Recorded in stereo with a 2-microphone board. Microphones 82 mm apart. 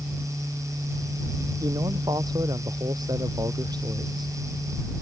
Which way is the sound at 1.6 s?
55° right (ahead or behind).